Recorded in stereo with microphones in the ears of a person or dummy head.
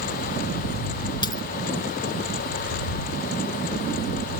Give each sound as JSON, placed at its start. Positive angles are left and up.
{"t": 1.2, "sound": "a dropped coin", "side_deg": 25}